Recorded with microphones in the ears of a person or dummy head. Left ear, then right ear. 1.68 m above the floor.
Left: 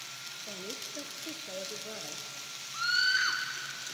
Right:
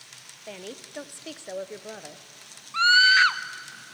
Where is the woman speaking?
20° right (ahead or behind), 0.8 m; by 2.2 s 25° right (ahead or behind), 0.9 m.